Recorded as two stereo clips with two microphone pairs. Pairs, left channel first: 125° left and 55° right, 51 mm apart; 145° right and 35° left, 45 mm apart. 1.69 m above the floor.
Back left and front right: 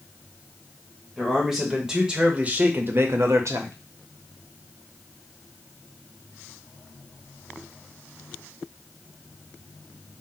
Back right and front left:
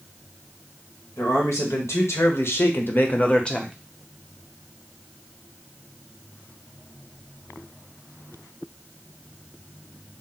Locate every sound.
1.2 s a man speaking: 145° right, 1.3 m; by 3.7 s 60° right, 0.7 m